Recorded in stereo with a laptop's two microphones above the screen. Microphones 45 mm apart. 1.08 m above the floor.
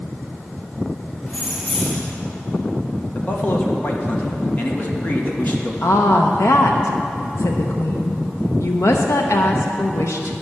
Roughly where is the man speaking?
Left.